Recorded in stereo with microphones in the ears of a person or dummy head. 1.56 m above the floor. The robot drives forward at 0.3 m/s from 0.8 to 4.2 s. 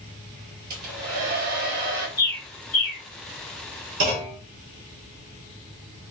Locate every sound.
0.7 s a hair dryer: 50° right (ahead or behind), 1.4 m; by 2.1 s 60° right (ahead or behind), 1.2 m
2.2 s a bird: 25° left (ahead or behind), 1.5 m
4.0 s a clunk: 50° right (ahead or behind), 0.9 m